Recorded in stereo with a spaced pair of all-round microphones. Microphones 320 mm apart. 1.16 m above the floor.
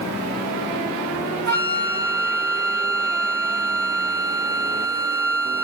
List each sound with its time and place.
1.5 s a flute: 65° right (ahead or behind), 2 m